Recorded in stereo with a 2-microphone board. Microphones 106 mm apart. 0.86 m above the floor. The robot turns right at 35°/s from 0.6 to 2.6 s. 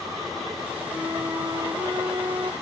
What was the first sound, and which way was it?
A flute, 135° right.